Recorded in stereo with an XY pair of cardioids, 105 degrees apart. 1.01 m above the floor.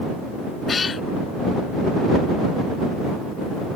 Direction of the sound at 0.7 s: 35° left.